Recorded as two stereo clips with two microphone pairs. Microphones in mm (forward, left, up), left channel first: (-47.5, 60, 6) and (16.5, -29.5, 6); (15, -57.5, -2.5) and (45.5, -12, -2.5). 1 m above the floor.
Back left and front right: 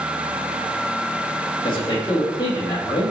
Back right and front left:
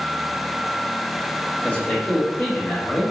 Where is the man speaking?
170° left, 1.4 m.